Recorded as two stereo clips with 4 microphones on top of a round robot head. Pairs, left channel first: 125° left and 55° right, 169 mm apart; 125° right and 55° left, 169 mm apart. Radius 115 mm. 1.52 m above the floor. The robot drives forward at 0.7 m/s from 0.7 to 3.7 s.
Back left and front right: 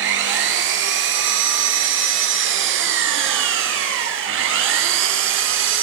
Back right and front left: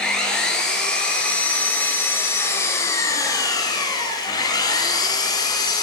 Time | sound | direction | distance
0.0 | an engine running | 40° right | 6 m